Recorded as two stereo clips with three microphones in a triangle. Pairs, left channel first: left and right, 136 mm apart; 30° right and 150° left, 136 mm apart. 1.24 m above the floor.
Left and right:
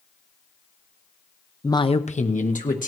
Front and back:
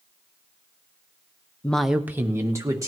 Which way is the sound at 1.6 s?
30° left.